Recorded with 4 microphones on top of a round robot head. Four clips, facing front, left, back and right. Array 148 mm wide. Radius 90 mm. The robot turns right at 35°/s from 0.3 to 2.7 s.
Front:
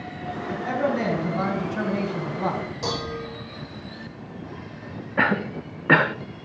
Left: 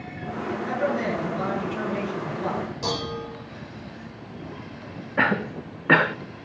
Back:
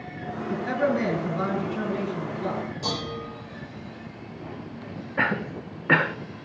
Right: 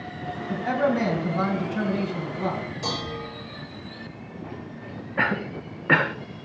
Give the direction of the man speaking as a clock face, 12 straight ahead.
2 o'clock.